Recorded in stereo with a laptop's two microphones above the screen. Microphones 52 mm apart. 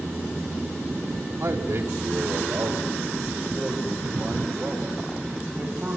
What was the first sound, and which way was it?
A man speaking, 70° right (ahead or behind).